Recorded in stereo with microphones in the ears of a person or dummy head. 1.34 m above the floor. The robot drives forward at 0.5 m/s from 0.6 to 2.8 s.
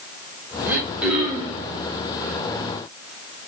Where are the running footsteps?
I don't hear running footsteps.